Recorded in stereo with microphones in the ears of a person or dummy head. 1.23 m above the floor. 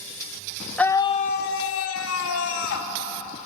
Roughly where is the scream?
Centre.